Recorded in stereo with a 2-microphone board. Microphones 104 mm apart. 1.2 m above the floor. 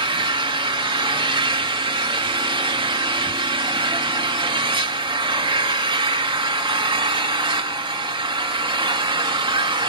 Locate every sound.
0.0 s an engine running: 50° right (ahead or behind), 2 m